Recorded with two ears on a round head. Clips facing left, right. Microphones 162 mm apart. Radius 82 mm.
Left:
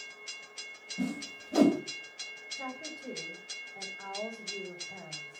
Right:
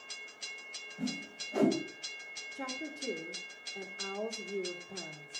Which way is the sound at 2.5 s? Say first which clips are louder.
Right 1 dB; 45° right (ahead or behind).